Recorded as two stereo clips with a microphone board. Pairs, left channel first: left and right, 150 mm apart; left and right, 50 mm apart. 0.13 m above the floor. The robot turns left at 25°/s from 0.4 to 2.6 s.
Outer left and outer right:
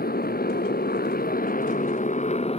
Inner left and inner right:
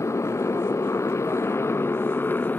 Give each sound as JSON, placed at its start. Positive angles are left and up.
{"t": 0.0, "sound": "a motorcycle", "azimuth_deg": 95}